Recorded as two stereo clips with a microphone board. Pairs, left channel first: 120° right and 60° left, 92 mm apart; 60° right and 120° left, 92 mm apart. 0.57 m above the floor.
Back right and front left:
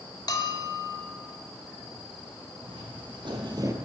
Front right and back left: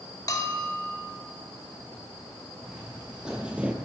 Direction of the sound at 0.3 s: 100° right.